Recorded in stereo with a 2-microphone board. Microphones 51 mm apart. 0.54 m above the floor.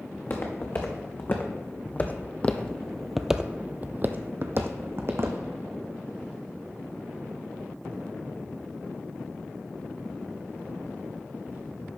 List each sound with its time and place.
0.1 s footsteps: 45° left (ahead or behind), 2.0 m; by 5.4 s 50° right (ahead or behind), 1.3 m